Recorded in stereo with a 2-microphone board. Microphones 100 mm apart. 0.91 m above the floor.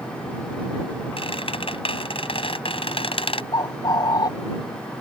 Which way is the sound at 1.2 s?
65° left (ahead or behind).